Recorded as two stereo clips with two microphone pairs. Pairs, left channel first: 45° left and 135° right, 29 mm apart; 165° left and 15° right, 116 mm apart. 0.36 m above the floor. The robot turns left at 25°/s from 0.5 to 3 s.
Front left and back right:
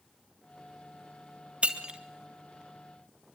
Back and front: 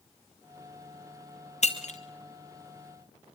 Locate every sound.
1.6 s breaking glass: 175° left, 2 m; by 2.0 s 165° left, 2 m